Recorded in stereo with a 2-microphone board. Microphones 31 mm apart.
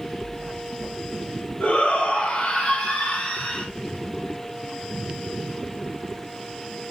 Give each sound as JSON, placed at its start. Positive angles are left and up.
{"t": 1.6, "sound": "a shout", "side_deg": 35, "distance_m": 1.5}